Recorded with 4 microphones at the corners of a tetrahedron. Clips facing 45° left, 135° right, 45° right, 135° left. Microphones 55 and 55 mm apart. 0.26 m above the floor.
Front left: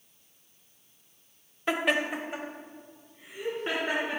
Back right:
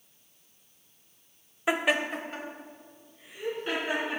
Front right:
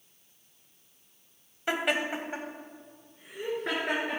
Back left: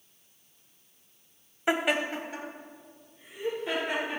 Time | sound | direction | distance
1.7 | laughter | 170° left | 0.9 m